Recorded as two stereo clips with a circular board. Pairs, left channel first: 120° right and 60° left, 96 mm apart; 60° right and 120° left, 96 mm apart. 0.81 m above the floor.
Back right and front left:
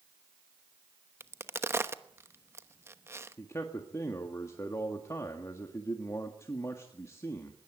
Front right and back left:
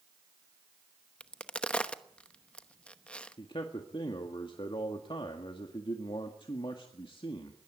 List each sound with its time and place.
1.2 s a crack: 15° left, 0.9 m
3.4 s a man speaking: 65° right, 1.7 m